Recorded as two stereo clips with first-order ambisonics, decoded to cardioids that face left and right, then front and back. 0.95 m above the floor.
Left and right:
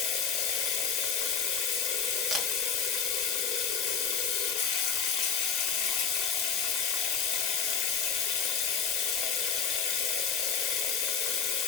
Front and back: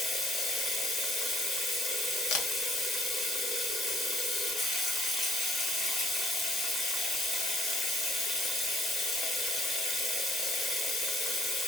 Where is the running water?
65° left, 1.1 m.